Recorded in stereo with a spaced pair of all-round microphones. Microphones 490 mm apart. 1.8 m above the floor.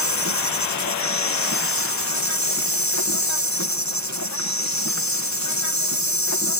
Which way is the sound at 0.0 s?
35° left (ahead or behind).